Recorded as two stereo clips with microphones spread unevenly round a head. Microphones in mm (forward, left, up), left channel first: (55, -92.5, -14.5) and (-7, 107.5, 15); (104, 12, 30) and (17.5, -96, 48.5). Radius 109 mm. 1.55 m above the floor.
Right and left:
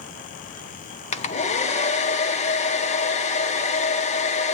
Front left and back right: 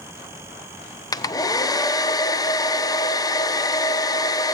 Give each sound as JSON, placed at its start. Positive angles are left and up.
{"t": 1.1, "sound": "a hair dryer", "azimuth_deg": -15, "distance_m": 1.1}